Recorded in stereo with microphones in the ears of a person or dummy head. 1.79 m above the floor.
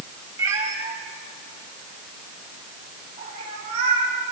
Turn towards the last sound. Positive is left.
turn(degrees=-40)  # may be behind; listen again after turning